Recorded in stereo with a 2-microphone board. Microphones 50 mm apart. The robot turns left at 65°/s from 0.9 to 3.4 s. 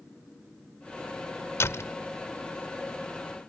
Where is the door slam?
60° left (ahead or behind); by 2.0 s 80° left.